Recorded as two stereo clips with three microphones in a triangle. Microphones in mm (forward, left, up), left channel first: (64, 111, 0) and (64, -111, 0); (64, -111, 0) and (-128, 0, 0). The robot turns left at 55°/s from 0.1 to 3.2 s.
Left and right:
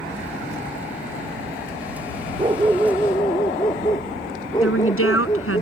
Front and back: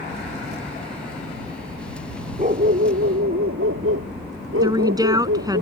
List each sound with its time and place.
2.4 s a dog barking: 155° right; by 5.6 s 160° left
4.6 s a woman speaking: 75° left